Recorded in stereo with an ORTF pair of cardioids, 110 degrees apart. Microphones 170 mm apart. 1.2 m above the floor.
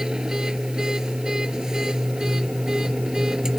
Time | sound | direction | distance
0.0 | a machine running | 5° right | ?